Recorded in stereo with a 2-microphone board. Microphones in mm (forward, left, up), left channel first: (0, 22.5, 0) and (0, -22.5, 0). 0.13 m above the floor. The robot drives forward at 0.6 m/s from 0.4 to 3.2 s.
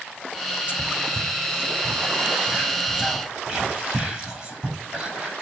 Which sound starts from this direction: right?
Whispering, at 0.7 s.